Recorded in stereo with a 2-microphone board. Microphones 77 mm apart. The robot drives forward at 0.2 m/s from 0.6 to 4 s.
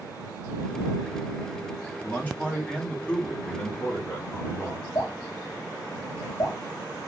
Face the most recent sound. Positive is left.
turn(degrees=45)  # may be behind; listen again after turning